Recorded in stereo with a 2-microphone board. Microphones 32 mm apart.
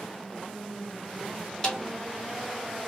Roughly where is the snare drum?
Left.